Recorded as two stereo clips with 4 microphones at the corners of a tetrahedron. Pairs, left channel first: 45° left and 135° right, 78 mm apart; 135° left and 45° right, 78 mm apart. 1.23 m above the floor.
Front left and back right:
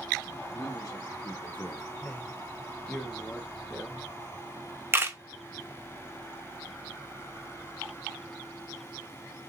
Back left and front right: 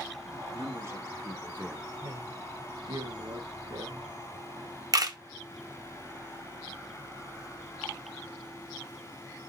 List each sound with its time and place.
0.5 s a man speaking: straight ahead, 2 m; by 1.9 s 40° left, 1.0 m
2.0 s a man speaking: 25° right, 1.4 m
4.9 s a camera shutter: 80° right, 0.8 m